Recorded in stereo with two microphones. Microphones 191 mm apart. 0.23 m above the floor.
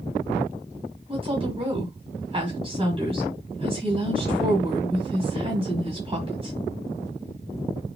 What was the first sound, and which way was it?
A woman speaking, 30° right (ahead or behind).